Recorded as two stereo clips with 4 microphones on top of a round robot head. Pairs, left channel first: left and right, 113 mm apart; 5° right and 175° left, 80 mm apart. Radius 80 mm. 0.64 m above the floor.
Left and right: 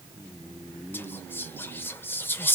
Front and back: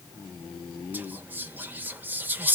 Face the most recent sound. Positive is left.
turn(degrees=140)